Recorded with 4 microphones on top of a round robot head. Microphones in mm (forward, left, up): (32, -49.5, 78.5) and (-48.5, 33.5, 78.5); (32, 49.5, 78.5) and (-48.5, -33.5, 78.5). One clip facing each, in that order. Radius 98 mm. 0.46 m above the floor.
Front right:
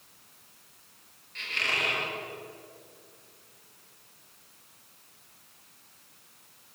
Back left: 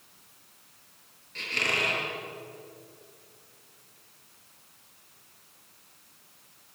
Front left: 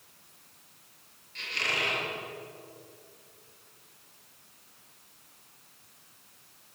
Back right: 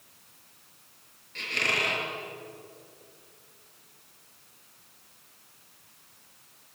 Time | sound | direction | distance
1.4 | a squeak | 175° right | 6.5 m